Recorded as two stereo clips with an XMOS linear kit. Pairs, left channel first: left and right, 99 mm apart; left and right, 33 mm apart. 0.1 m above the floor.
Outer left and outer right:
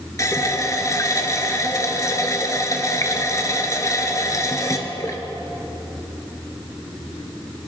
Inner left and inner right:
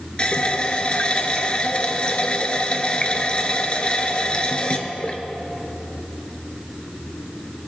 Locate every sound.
0.2 s a running tap: 35° left (ahead or behind), 0.8 m